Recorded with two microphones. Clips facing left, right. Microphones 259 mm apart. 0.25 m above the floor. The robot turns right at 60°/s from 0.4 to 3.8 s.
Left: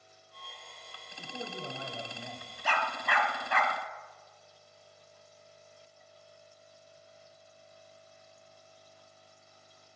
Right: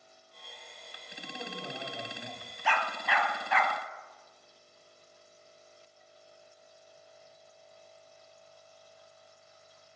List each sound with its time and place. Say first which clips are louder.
1.2 s a man speaking: left 1 dB; 25° left (ahead or behind), 1.2 m; by 2.6 s 5° right (ahead or behind), 1.2 m
2.6 s a dog barking: right 1 dB; 45° left (ahead or behind), 0.8 m